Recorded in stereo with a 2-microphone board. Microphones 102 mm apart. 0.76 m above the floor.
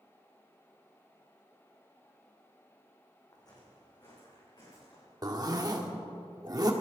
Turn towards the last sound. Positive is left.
turn(degrees=-40)  # may be behind; listen again after turning